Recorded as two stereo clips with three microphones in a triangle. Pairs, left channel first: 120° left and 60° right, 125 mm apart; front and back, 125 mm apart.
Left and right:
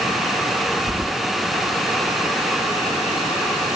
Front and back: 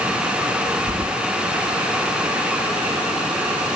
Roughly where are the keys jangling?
Behind right.